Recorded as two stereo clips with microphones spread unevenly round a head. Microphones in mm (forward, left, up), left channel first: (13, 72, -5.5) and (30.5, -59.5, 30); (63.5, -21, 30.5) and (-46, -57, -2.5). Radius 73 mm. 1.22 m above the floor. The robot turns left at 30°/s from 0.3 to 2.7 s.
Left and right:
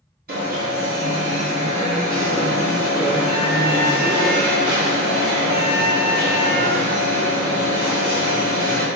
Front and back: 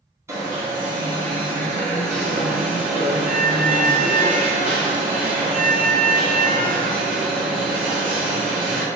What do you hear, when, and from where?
0.3 s an alarm: 90° right, 1.3 m; by 8.8 s 160° right, 1.3 m